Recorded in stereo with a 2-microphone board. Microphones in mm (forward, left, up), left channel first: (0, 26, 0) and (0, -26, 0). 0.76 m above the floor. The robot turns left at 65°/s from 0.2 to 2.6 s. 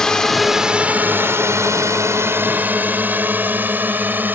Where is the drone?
10° left (ahead or behind); by 4.3 s 40° right (ahead or behind).